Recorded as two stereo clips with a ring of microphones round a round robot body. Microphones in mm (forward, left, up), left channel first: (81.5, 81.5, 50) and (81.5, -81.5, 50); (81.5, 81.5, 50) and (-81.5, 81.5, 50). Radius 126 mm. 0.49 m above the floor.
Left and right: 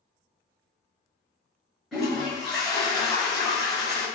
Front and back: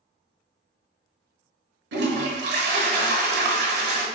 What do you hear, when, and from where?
1.9 s a toilet flushing: straight behind, 0.8 m